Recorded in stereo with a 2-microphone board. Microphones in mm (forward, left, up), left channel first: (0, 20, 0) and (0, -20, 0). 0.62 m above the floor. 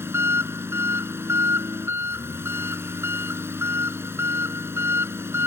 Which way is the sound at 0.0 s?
80° right.